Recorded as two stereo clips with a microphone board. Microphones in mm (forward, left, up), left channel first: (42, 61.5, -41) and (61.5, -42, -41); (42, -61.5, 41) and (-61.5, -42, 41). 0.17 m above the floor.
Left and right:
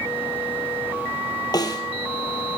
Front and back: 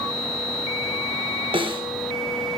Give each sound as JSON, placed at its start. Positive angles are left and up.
{"t": 1.5, "sound": "a snare drum", "azimuth_deg": 145, "distance_m": 1.7}